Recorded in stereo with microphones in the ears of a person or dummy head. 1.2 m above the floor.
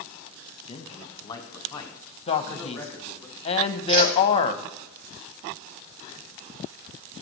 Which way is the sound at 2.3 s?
30° left (ahead or behind).